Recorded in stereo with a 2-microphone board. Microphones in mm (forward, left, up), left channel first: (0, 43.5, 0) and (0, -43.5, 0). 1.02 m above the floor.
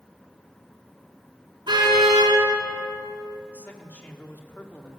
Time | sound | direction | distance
1.7 | a car horn | 65° right (ahead or behind) | 7 m
3.5 | a man speaking | 20° left (ahead or behind) | 1.9 m